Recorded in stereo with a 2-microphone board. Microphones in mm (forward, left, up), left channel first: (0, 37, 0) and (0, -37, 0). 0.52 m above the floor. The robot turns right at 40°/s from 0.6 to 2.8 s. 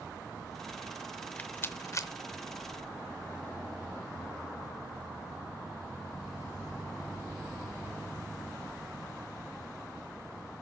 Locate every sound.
1.2 s a rattle: 10° left (ahead or behind), 0.6 m; by 2.1 s 45° left (ahead or behind), 0.6 m